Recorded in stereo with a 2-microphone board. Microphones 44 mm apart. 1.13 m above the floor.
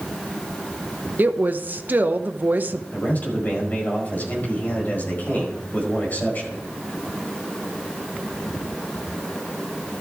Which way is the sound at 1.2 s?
45° right (ahead or behind).